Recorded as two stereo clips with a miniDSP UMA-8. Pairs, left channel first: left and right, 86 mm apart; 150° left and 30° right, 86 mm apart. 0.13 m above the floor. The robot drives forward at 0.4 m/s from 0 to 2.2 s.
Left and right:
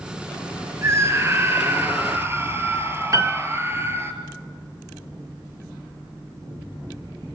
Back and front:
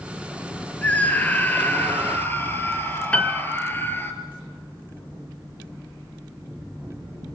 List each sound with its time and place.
0.8 s a scream: 140° right, 2.5 m; by 4.1 s 150° right, 3 m
3.1 s a piano: 135° right, 1.1 m